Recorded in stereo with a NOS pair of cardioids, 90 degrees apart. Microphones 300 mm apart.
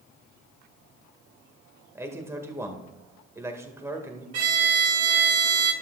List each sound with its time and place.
1.9 s a man speaking: 10° right, 1.8 m
4.3 s a violin: 55° right, 1.2 m